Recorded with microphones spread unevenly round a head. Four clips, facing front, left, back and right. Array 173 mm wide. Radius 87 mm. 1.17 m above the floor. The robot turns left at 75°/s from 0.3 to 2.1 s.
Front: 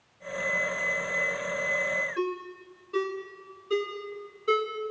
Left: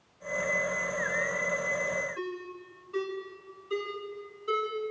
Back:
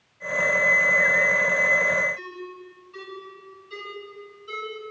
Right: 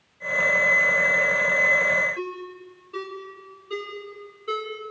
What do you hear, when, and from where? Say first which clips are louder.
2.2 s a ringtone: right 4 dB, front 6 dB; 25° right, 6 m